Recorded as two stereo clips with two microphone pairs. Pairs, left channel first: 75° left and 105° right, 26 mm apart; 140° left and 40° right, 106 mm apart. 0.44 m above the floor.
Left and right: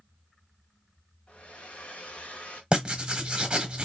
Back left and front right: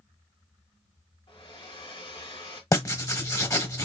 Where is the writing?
165° right, 0.9 m.